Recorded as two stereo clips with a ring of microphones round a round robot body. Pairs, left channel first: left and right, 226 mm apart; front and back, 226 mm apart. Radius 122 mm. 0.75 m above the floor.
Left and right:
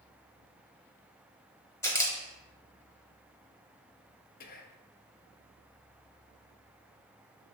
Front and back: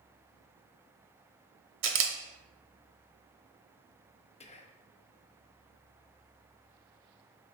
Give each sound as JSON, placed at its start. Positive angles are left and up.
{"t": 1.8, "sound": "a camera shutter", "azimuth_deg": 165, "distance_m": 0.7}
{"t": 4.4, "sound": "whispering", "azimuth_deg": 55, "distance_m": 0.6}